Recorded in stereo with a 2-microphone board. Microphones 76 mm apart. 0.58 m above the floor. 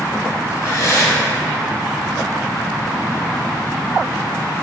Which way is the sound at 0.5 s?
40° left (ahead or behind).